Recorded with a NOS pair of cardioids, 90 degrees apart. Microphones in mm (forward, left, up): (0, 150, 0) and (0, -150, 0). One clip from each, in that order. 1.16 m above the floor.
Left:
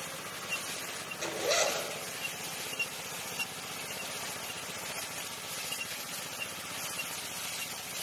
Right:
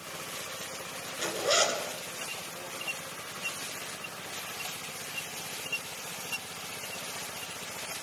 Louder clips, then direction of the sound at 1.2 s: Right 3 dB; 30° right.